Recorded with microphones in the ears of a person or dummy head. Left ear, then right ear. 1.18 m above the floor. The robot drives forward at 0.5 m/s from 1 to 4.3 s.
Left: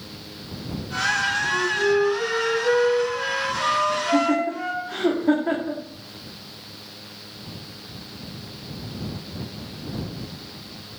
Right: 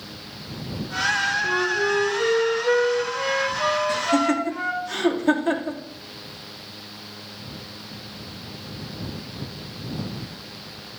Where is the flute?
25° right (ahead or behind), 0.9 m; by 4.9 s 10° right (ahead or behind), 2.5 m.